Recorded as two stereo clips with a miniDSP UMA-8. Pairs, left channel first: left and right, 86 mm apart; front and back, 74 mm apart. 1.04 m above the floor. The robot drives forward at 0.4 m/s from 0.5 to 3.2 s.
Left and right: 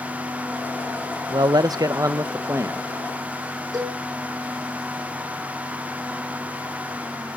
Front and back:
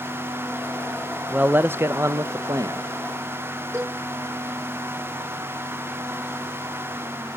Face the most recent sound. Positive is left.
turn(degrees=-130)